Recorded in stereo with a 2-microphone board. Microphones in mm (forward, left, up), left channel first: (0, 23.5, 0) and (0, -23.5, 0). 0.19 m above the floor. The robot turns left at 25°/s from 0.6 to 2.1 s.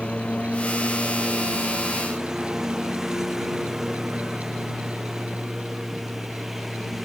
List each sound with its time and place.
0.0 s a lawn mower: 20° left (ahead or behind); by 7.0 s 5° right (ahead or behind)